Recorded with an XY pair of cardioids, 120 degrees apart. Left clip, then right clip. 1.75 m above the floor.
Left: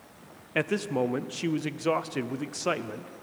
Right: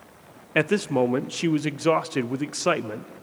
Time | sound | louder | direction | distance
0.6 | a man speaking | right 6 dB | 30° right | 0.6 m